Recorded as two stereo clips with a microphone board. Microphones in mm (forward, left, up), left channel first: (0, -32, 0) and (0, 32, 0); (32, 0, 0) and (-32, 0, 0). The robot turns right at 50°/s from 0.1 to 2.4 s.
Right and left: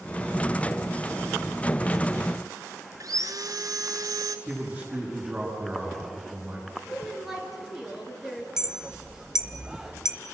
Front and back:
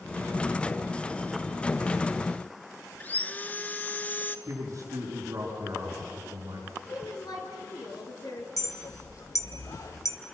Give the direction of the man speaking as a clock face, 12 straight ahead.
7 o'clock.